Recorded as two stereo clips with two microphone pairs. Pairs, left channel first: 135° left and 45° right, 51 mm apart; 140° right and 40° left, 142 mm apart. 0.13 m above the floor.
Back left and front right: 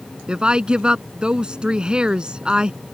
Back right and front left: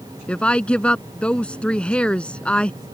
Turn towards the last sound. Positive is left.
turn(degrees=-75)